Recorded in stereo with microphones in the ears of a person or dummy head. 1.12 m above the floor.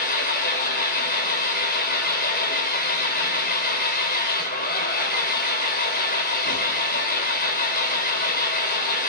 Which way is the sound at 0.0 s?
55° left (ahead or behind).